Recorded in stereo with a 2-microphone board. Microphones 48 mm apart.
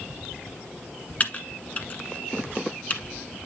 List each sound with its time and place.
1.2 s typing on a keyboard: 35° left (ahead or behind), 1.1 m